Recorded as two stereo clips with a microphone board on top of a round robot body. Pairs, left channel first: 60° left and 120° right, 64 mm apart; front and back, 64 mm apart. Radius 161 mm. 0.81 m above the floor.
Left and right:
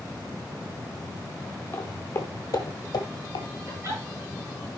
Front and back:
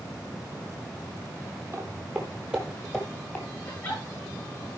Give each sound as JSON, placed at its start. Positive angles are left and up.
{"t": 1.7, "sound": "footsteps", "azimuth_deg": 120, "distance_m": 1.7}
{"t": 3.7, "sound": "a giggle", "azimuth_deg": -65, "distance_m": 7.5}